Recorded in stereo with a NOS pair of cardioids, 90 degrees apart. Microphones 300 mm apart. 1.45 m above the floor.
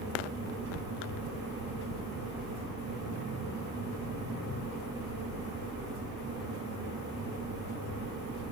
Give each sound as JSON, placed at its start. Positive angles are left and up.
{"t": 0.0, "sound": "a fan", "azimuth_deg": -55, "distance_m": 8.0}